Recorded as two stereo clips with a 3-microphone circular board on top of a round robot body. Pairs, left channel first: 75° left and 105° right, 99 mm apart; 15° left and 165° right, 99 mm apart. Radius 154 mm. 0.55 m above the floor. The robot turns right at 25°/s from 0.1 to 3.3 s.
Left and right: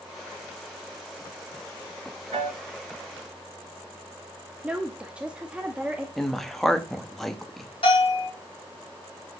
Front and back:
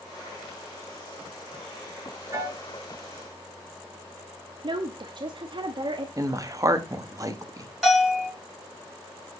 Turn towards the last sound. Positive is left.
turn(degrees=105)